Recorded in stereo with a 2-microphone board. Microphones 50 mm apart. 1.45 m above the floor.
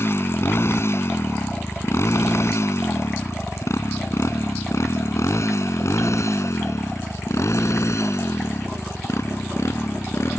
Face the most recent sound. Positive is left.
turn(degrees=70)  # may be behind; listen again after turning